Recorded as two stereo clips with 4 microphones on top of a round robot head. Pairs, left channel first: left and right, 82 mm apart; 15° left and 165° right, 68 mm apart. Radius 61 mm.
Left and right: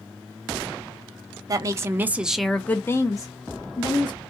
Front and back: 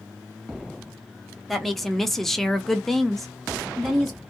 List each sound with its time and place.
1.5 s a woman speaking: 75° right, 0.7 m; by 4.2 s 100° left, 1.1 m